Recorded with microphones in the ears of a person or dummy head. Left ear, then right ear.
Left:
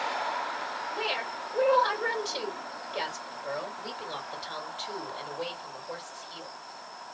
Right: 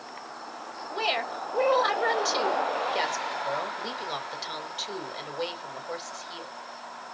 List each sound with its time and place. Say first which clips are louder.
0.9 s a woman speaking: right 6 dB; 50° right (ahead or behind), 2.5 m